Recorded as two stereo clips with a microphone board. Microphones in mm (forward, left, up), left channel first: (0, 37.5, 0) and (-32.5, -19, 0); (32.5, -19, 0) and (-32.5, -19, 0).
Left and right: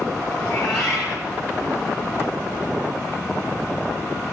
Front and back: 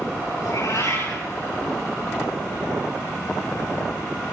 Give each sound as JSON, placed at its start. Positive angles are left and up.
{"t": 0.4, "sound": "a cat meowing", "azimuth_deg": -15, "distance_m": 9.5}